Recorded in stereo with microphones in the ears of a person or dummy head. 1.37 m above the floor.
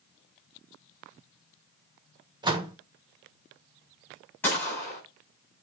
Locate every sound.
2.4 s a door slam: 25° right (ahead or behind), 1.1 m
4.4 s a gunshot: 10° left (ahead or behind), 5.5 m